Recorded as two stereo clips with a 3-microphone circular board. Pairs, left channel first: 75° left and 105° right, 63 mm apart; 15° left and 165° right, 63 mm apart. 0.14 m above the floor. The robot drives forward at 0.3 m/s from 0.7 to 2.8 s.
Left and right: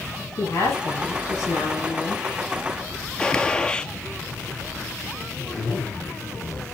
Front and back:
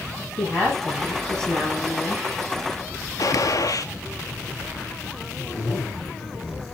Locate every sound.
0.4 s a woman speaking: 90° left, 6.5 m; by 2.2 s 95° left, 6.5 m
3.2 s a gunshot: straight ahead, 0.6 m
5.4 s a zipper: 80° left, 5 m